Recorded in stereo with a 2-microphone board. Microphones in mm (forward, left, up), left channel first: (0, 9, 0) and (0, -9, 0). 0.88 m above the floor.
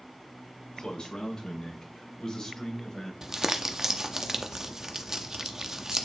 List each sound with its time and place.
0.8 s a man speaking: 50° left (ahead or behind), 3 m; by 3.1 s 30° left (ahead or behind), 3.5 m
3.2 s crumpling: 25° right (ahead or behind), 0.7 m